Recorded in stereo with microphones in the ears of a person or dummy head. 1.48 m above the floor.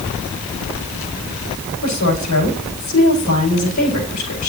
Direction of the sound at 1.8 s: 85° left.